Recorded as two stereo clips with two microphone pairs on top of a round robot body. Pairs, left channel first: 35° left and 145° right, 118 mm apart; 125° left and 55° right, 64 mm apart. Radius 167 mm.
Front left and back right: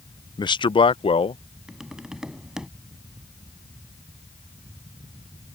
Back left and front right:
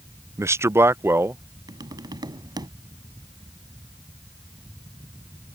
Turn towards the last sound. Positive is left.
turn(degrees=-60)